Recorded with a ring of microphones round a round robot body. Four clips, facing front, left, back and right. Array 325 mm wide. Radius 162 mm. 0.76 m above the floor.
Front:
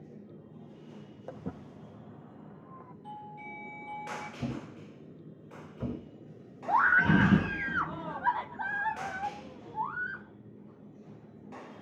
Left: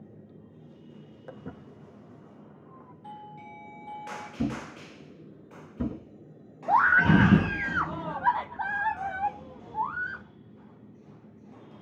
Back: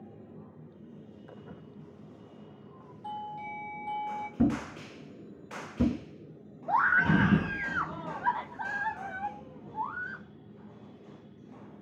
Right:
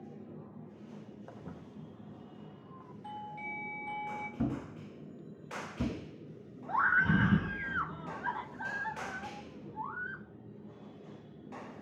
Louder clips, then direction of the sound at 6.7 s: Left 8 dB, front 1 dB; 85° left.